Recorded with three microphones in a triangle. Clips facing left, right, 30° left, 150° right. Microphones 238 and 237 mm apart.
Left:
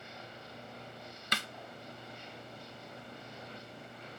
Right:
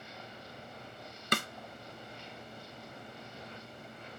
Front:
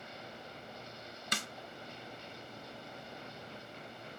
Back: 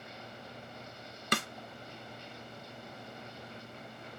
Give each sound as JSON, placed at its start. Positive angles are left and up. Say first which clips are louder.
{"t": 1.3, "sound": "a snare drum", "louder": "right 8 dB, back 9 dB", "azimuth_deg": -130, "distance_m": 0.5}